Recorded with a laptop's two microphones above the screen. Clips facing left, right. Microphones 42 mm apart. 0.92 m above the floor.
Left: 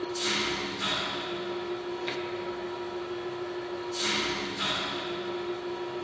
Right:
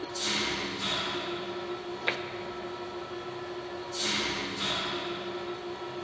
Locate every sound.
0.0 s an engine running: 30° left (ahead or behind), 3 m
2.1 s tapping: 40° right (ahead or behind), 0.5 m